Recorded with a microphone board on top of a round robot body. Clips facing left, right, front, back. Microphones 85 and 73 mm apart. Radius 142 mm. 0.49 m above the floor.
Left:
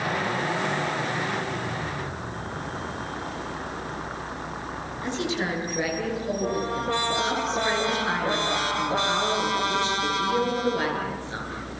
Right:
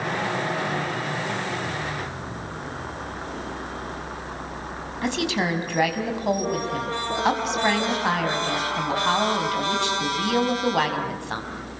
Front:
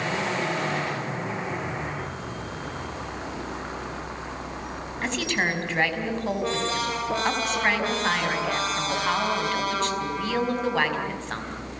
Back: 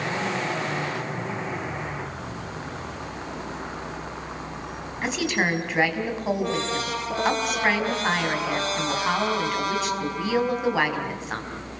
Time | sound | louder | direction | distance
5.0 | a woman speaking | right 4 dB, back 2 dB | 95° right | 5 m